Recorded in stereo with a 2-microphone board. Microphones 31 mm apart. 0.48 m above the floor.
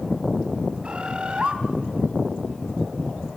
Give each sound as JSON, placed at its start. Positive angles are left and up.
{"t": 0.8, "sound": "a bird", "side_deg": -35, "distance_m": 2.0}